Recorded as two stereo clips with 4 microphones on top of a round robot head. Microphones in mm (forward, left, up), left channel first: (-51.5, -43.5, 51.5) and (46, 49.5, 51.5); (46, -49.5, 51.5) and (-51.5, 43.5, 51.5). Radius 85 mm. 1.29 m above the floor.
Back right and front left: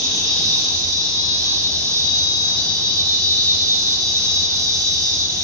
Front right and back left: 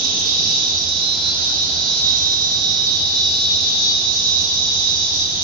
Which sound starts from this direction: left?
An insect, at 0.0 s.